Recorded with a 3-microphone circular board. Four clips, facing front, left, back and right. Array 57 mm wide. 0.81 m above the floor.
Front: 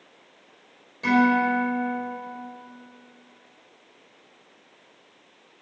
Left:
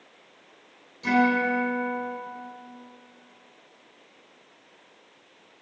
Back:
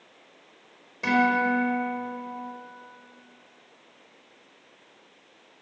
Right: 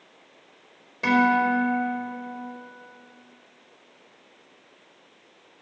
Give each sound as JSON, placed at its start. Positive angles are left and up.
{"t": 1.0, "sound": "a guitar", "azimuth_deg": -105, "distance_m": 4.0}